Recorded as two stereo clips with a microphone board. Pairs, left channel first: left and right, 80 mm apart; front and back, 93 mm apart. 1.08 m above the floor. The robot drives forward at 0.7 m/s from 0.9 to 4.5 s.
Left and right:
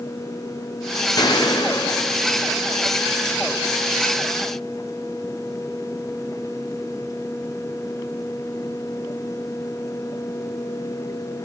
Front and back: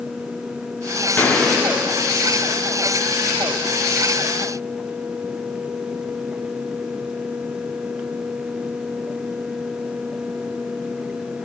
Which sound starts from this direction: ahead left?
A gunshot, at 1.2 s.